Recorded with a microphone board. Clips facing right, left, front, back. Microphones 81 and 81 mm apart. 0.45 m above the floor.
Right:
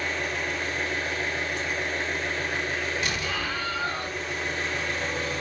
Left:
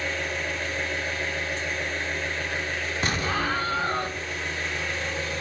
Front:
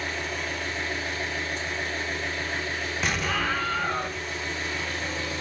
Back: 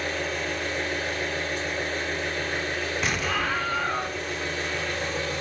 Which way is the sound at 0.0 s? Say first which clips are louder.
Even, back 2 dB; 170° right.